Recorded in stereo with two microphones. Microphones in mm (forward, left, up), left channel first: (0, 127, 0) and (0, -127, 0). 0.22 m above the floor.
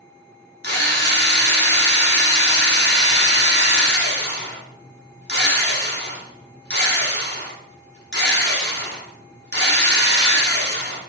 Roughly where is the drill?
Left.